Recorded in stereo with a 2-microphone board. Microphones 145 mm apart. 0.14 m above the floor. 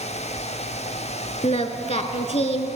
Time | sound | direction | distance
1.4 | singing | 50° left (ahead or behind) | 0.7 m